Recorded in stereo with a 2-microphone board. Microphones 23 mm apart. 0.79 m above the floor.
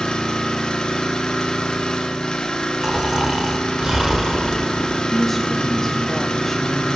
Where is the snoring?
20° right (ahead or behind), 0.7 m.